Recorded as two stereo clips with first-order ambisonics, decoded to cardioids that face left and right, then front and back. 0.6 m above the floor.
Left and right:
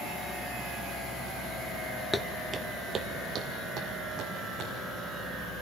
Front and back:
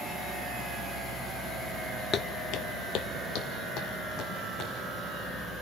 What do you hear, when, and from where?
2.1 s footsteps: 15° left, 0.6 m; by 4.7 s 40° right, 3.5 m